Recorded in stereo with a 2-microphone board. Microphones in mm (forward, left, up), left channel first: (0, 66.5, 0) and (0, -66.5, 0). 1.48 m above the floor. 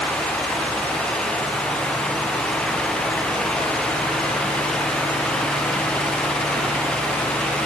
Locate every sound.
Only background noise.